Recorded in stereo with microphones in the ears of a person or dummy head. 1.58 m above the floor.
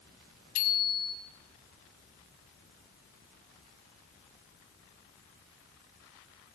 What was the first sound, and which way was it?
A bicycle bell, 55° left (ahead or behind).